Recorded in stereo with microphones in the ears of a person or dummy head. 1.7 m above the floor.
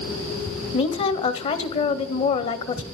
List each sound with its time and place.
0.7 s a woman speaking: 35° left (ahead or behind), 0.8 m